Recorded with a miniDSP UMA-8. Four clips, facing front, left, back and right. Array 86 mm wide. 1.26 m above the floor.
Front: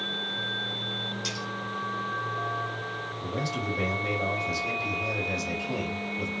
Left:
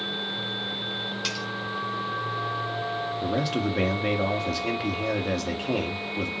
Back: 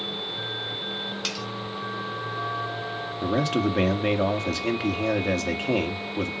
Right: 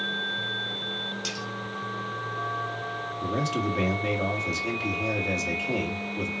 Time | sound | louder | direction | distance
1.2 | cutlery clinking | left 2 dB, back 2 dB | 155° left | 4.5 m
3.2 | a man speaking | even, back 9 dB | 160° left | 1.8 m